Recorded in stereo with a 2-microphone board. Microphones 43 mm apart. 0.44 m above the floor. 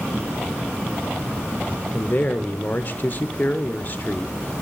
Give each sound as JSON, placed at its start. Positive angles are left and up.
{"t": 1.9, "sound": "a man speaking", "side_deg": 40, "distance_m": 0.9}